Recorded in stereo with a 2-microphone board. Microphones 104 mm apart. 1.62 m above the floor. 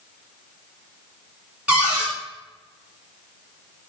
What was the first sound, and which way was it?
A cupboard door, 10° right (ahead or behind).